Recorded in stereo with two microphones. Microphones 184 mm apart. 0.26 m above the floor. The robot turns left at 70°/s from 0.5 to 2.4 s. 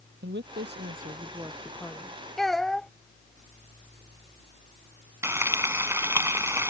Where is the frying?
15° right (ahead or behind).